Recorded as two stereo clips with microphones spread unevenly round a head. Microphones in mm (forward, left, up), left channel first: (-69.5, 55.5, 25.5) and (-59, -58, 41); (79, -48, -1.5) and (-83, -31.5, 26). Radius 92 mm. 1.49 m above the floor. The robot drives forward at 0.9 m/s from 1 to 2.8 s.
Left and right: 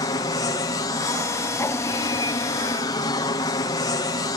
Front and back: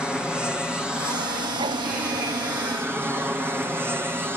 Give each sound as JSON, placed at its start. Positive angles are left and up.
{"t": 0.0, "sound": "an aircraft", "azimuth_deg": 80}